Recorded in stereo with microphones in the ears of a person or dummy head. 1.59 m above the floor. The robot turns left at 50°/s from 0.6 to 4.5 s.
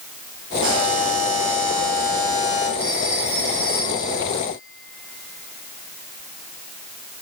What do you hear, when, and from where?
0.6 s a buzzer: 60° right, 6 m; by 2.7 s 165° right, 6 m
2.8 s a phone ringing: 30° right (ahead or behind), 7 m; by 7.2 s 55° left (ahead or behind), 7 m